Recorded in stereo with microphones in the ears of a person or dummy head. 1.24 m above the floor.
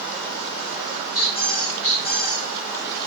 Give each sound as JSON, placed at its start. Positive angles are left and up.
{"t": 1.1, "sound": "a squeak", "side_deg": 45, "distance_m": 1.4}